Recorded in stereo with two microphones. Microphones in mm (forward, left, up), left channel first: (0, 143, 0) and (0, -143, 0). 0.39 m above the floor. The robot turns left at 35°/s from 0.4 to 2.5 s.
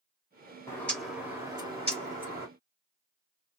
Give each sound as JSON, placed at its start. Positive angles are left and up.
{"t": 0.7, "sound": "a bird", "azimuth_deg": 15, "distance_m": 1.9}